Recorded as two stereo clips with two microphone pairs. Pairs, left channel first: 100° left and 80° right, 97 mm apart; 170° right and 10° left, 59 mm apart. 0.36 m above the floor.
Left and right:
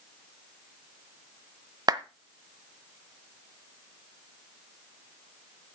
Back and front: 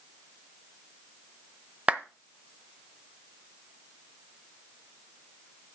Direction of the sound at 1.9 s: 50° right.